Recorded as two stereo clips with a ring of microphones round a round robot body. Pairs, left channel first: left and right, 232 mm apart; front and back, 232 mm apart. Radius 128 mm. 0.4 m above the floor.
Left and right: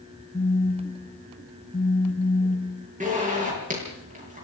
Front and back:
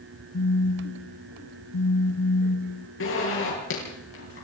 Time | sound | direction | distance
0.3 | a phone buzzing | 5° left | 1.1 m
3.0 | a zipper | 30° right | 9 m